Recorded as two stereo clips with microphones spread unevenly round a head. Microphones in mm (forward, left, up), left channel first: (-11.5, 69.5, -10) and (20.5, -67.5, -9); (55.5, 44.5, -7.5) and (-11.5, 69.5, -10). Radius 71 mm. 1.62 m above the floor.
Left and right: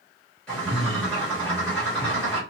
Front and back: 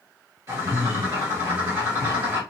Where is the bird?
175° right, 1.5 m.